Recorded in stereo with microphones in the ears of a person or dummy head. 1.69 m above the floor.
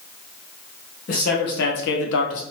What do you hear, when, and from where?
1.1 s a man speaking: 55° left (ahead or behind), 1.3 m; by 2.4 s 75° left (ahead or behind), 0.9 m